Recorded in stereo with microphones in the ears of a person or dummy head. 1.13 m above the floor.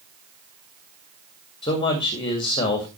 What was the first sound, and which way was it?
A man speaking, 25° left (ahead or behind).